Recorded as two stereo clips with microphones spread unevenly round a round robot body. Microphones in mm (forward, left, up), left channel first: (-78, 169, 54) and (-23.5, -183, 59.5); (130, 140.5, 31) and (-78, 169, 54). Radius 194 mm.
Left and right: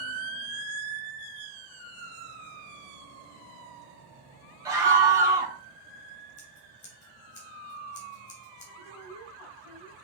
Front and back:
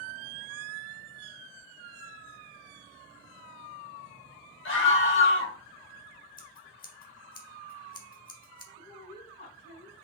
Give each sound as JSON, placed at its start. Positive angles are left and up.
{"t": 4.7, "sound": "a scream", "azimuth_deg": 0, "distance_m": 3.5}
{"t": 6.4, "sound": "scissors", "azimuth_deg": 30, "distance_m": 1.8}
{"t": 8.8, "sound": "a woman speaking", "azimuth_deg": 15, "distance_m": 3.5}